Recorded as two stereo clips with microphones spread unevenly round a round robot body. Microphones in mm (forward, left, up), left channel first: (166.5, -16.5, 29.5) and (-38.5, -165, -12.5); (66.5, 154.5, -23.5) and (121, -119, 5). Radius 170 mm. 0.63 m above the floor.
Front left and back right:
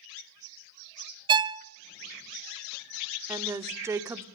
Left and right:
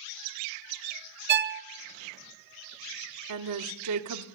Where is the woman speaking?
70° right, 1.6 m.